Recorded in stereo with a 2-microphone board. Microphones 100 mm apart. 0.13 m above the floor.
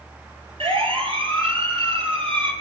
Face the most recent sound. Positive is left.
turn(degrees=-60)  # may be behind; listen again after turning